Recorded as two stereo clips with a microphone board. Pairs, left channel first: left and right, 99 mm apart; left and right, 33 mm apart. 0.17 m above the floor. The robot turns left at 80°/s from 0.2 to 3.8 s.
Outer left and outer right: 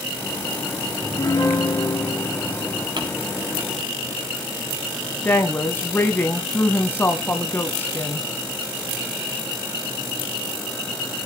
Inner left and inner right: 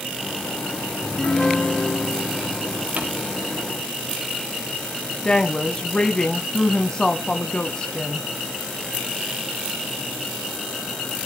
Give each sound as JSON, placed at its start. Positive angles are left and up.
{"t": 1.0, "sound": "a piano", "azimuth_deg": 160, "distance_m": 3.0}
{"t": 3.0, "sound": "crumpling", "side_deg": -50, "distance_m": 5.0}
{"t": 5.2, "sound": "a woman speaking", "side_deg": 20, "distance_m": 1.3}